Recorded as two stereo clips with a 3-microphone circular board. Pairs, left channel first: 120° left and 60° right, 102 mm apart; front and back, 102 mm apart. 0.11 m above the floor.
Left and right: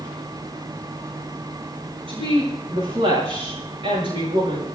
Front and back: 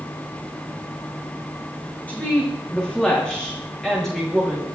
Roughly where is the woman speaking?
Right.